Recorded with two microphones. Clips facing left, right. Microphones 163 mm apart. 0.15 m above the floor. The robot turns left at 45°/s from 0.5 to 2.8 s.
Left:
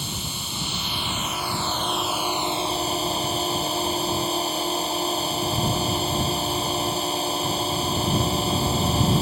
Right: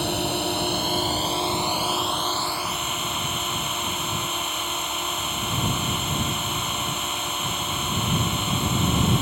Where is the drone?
110° right; by 9.2 s 145° left.